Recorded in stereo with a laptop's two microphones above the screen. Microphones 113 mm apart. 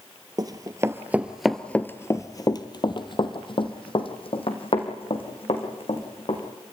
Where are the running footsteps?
40° right (ahead or behind), 1.1 m; by 6.4 s 65° left (ahead or behind), 4 m.